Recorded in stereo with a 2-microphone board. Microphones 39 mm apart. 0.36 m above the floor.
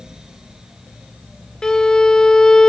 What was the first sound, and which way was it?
A violin, 20° left (ahead or behind).